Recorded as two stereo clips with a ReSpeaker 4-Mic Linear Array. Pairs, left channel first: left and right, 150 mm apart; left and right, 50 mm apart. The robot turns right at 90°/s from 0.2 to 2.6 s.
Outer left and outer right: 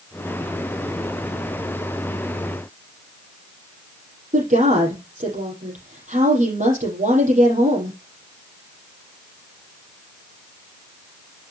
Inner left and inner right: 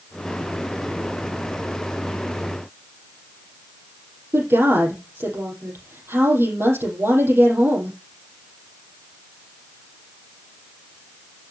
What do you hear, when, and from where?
4.3 s a woman speaking: 55° right (ahead or behind), 5 m